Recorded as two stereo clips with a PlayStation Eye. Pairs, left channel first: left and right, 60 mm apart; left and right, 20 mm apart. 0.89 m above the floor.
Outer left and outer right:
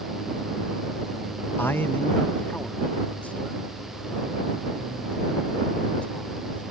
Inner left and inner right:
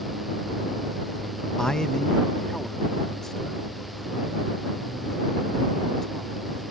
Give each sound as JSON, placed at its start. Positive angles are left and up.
{"t": 1.6, "sound": "a man speaking", "side_deg": 35}